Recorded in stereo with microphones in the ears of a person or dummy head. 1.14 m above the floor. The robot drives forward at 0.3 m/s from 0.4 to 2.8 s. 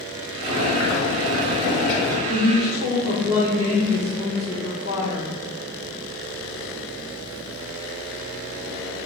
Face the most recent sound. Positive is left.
turn(degrees=-30)  # may be behind; listen again after turning